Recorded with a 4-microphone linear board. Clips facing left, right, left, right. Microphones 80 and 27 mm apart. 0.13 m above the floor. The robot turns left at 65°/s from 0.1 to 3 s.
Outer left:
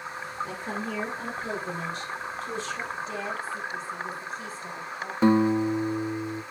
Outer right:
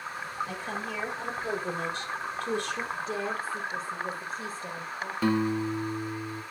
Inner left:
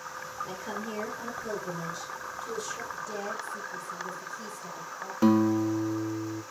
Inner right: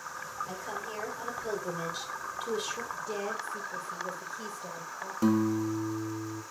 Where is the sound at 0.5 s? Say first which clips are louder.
Outer left 2 dB, inner left 2 dB; 55° left, 3.5 m; by 2.8 s 100° right, 3.5 m.